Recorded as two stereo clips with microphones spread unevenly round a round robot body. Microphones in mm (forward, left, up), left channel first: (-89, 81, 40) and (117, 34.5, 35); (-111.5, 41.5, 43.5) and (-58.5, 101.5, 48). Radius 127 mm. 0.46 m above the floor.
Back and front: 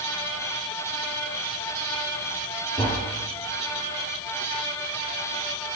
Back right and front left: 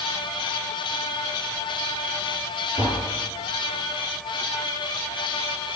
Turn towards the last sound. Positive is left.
turn(degrees=-125)